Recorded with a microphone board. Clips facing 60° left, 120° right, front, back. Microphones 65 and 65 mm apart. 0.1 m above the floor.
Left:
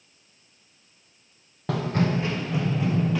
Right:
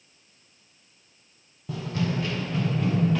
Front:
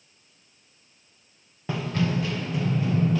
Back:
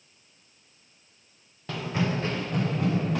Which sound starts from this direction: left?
Running footsteps, at 1.7 s.